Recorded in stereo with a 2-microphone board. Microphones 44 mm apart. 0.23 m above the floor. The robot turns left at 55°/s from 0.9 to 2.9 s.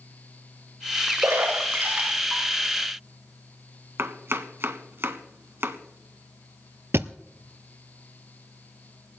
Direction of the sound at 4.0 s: 60° right (ahead or behind).